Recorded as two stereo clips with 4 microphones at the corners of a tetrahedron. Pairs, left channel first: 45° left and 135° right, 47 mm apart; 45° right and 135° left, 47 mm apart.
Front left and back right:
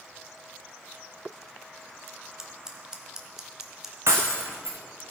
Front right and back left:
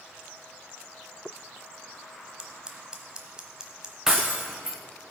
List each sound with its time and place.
2.4 s scissors: 170° left, 1.3 m
4.1 s breaking glass: 145° right, 1.6 m